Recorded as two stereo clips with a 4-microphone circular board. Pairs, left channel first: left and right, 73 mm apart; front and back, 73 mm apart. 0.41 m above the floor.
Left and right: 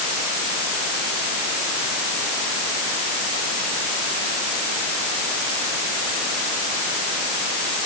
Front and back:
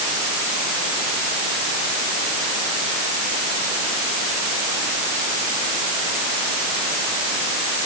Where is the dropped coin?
No dropped coin in this recording.